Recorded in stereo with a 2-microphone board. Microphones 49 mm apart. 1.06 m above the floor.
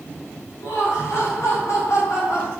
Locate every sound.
0.6 s laughter: 65° left (ahead or behind), 2.5 m; by 2.5 s 80° left, 3.5 m